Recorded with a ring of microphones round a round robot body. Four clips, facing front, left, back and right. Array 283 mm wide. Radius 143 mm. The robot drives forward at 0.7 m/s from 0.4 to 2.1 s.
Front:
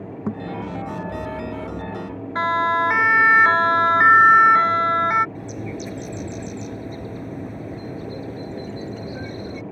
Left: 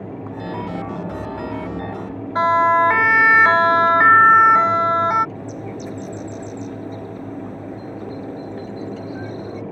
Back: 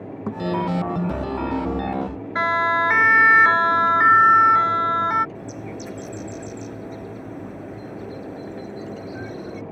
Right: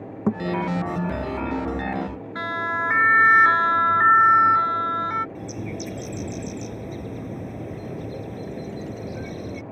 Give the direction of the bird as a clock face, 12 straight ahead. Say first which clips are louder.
Left 2 dB, front 2 dB; 2 o'clock.